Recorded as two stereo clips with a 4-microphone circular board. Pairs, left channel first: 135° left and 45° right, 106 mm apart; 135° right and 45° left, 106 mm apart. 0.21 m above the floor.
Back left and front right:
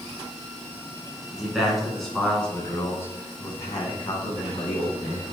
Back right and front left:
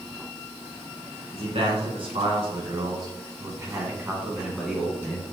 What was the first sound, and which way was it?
A man speaking, 40° left.